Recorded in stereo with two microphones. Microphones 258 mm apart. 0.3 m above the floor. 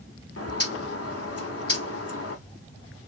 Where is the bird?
65° left (ahead or behind), 0.7 m.